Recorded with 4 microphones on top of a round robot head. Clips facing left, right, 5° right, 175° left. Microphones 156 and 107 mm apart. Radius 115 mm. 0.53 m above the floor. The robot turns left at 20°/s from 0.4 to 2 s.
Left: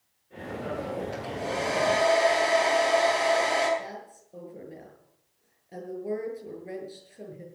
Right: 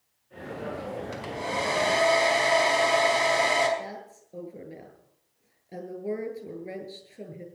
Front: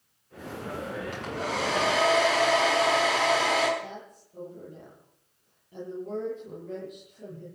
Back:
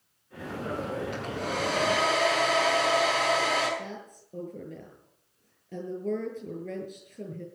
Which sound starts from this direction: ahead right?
A hair dryer, at 1.1 s.